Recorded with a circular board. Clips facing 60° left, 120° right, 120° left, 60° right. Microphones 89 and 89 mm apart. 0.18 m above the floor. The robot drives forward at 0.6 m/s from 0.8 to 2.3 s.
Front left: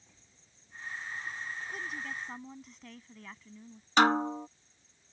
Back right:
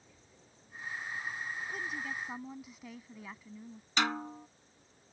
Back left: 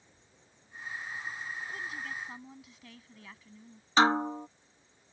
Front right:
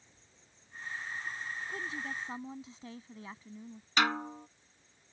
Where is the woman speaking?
30° right; by 3.9 s 45° right.